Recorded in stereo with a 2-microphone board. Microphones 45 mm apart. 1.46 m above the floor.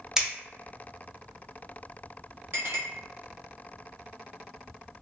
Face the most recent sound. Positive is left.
turn(degrees=-55)  # may be behind; listen again after turning